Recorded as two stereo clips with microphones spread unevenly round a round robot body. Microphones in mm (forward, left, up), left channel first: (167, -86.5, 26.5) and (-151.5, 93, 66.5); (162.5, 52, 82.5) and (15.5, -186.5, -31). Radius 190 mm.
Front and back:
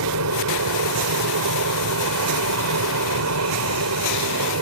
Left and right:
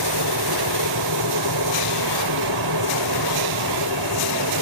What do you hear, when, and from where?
0.0 s an aircraft: 160° right